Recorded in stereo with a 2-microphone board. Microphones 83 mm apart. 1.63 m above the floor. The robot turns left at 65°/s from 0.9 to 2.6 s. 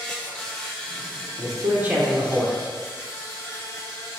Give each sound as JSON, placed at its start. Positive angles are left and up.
{"t": 0.0, "sound": "an insect", "azimuth_deg": 170, "distance_m": 1.1}
{"t": 1.4, "sound": "a man speaking", "azimuth_deg": -130, "distance_m": 1.0}